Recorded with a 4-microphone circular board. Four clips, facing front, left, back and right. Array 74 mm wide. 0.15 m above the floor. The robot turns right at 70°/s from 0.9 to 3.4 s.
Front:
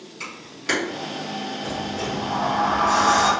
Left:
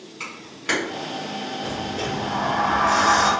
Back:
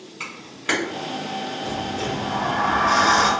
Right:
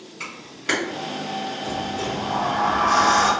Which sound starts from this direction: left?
A sliding door, at 1.6 s.